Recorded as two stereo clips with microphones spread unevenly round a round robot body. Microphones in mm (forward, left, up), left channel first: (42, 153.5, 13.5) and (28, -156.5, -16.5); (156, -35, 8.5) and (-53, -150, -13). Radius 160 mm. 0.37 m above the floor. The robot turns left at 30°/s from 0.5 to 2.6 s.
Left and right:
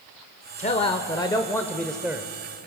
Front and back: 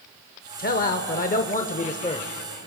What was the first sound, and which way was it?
A man speaking, 30° left.